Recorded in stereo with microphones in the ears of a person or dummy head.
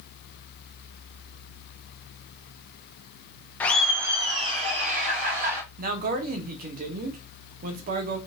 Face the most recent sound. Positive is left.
turn(degrees=-55)  # may be behind; listen again after turning